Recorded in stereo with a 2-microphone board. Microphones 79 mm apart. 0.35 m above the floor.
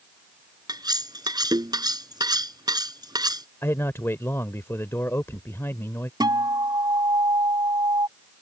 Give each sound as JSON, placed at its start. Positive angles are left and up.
{"t": 0.7, "sound": "cutlery clinking", "side_deg": -55}
{"t": 3.6, "sound": "a man speaking", "side_deg": 30}
{"t": 6.2, "sound": "a guitar", "side_deg": -55}